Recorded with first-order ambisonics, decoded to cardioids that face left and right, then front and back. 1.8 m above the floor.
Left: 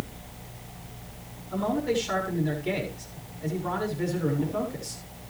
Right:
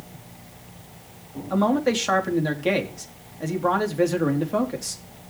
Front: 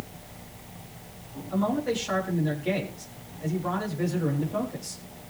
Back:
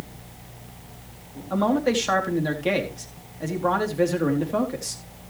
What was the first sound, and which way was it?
A man speaking, 130° right.